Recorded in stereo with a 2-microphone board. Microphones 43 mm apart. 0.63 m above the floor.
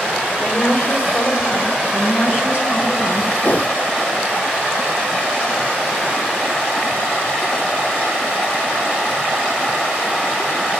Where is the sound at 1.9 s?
65° left (ahead or behind), 6 m.